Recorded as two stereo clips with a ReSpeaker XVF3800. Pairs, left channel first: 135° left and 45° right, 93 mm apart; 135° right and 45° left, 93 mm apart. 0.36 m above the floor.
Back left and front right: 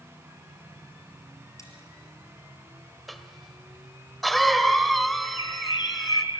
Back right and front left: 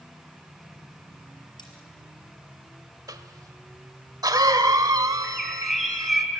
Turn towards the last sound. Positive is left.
turn(degrees=130)